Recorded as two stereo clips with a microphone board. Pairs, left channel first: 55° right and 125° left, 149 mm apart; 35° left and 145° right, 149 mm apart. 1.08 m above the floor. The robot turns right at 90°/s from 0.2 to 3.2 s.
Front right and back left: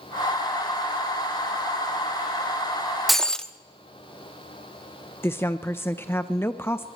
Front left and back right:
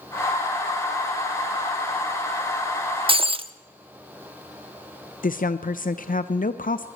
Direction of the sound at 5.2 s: 20° left.